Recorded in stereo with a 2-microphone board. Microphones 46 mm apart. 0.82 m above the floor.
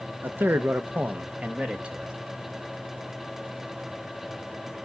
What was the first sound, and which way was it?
A man speaking, 45° right (ahead or behind).